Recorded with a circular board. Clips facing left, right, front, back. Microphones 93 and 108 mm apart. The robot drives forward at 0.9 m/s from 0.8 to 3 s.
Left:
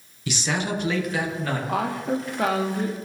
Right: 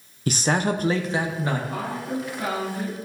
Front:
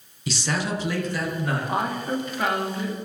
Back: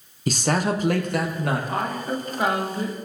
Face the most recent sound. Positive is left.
turn(degrees=135)